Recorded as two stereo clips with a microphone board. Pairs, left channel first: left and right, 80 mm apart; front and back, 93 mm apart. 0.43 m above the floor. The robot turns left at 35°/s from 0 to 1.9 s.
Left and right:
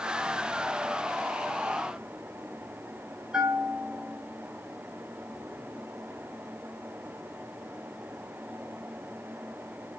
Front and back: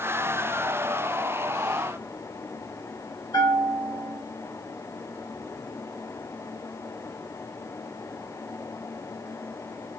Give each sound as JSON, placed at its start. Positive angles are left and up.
{"t": 3.3, "sound": "a bell", "azimuth_deg": -15, "distance_m": 2.0}